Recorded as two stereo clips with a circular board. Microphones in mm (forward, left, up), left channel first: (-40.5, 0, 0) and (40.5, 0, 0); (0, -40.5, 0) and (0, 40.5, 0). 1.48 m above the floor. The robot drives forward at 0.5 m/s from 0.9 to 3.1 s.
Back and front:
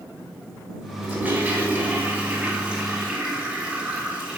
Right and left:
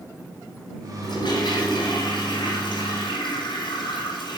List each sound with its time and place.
1.0 s a toilet flushing: 70° right, 5.5 m; by 4.4 s 80° right, 5.5 m